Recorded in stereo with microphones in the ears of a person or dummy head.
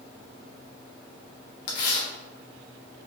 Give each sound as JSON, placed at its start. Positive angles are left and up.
{"t": 1.7, "sound": "tearing paper", "side_deg": 65, "distance_m": 1.2}